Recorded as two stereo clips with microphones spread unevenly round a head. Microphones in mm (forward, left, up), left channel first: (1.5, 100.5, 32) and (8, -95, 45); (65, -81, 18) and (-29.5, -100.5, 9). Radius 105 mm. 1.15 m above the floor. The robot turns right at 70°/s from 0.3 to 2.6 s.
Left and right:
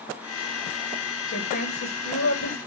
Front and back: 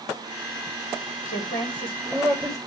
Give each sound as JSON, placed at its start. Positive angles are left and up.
{"t": 1.3, "sound": "a woman speaking", "azimuth_deg": 45, "distance_m": 2.5}